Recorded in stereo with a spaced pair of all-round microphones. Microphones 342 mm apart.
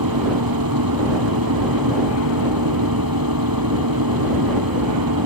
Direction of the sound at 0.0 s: 85° right.